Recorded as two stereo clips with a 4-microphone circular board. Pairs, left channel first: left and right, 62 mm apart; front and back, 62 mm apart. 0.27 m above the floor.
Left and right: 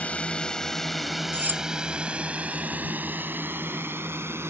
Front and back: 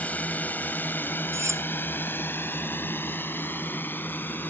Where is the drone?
45° left; by 4.5 s 50° right.